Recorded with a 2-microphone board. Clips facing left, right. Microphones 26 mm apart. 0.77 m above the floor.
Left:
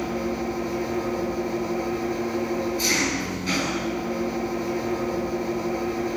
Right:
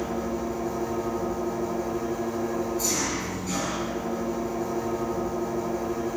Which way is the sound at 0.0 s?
55° left (ahead or behind).